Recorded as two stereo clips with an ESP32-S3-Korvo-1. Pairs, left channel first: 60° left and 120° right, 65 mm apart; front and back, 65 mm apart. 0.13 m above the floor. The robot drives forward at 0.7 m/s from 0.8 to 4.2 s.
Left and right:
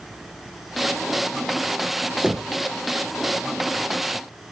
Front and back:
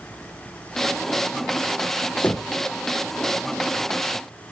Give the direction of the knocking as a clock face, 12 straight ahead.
2 o'clock.